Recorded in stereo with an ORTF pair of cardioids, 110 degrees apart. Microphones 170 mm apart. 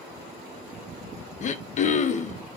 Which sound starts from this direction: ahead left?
Throat clearing, at 1.4 s.